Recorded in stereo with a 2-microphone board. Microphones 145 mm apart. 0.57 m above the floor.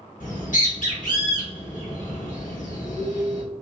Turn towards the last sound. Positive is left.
turn(degrees=75)  # may be behind; listen again after turning